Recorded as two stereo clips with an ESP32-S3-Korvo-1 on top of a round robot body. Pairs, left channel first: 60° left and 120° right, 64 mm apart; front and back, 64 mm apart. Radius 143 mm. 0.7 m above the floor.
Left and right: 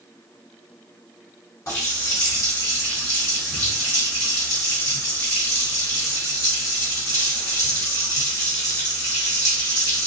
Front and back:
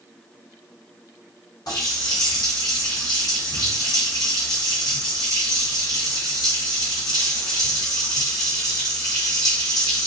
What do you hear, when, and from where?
1.7 s a running tap: 15° left, 2 m